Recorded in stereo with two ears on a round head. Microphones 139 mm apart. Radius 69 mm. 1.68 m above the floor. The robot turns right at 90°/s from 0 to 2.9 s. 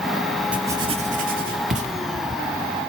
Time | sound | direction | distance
0.5 | writing | 10° right (ahead or behind) | 1.8 m